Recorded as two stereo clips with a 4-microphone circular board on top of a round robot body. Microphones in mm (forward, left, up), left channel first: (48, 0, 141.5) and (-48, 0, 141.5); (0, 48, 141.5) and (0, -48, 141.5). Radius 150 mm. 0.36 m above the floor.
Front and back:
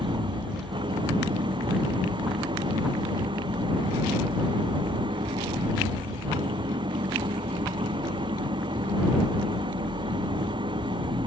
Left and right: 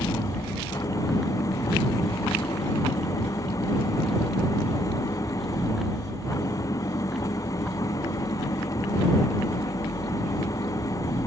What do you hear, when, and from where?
0.0 s an engine running: 145° left